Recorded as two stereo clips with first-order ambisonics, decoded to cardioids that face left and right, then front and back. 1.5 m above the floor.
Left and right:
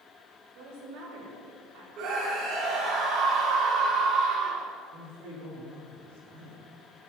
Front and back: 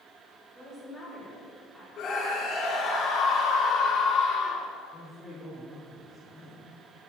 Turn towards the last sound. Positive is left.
turn(degrees=-70)